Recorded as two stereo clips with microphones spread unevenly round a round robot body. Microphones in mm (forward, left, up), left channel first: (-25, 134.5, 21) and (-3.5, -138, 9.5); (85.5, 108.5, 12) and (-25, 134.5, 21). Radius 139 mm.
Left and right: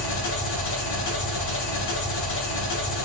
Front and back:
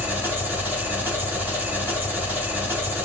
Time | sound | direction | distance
0.0 | an engine running | 90° left | 1.8 m